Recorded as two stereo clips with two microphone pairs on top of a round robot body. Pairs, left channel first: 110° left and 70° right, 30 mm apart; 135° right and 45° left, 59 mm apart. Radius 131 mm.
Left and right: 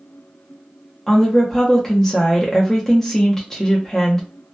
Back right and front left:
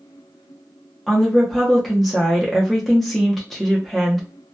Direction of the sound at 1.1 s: 165° left.